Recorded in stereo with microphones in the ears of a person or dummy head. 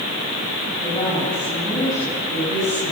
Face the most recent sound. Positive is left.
turn(degrees=25)  # may be behind; listen again after turning